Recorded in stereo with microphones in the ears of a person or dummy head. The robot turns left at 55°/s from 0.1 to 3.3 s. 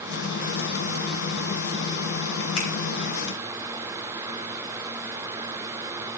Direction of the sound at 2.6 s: 80° left.